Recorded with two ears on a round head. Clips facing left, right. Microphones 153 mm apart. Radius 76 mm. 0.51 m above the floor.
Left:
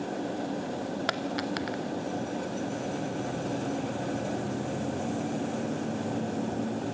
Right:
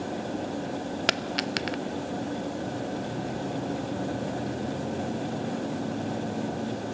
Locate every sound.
1.1 s a dropped coin: 30° right (ahead or behind), 0.6 m